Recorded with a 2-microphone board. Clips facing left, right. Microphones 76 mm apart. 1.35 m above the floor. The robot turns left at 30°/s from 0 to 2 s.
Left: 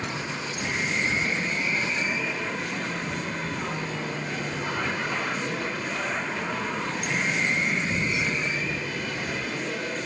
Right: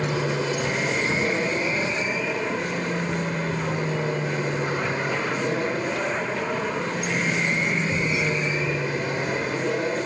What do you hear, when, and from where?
0.0 s an aircraft: 85° right; by 10.1 s 145° right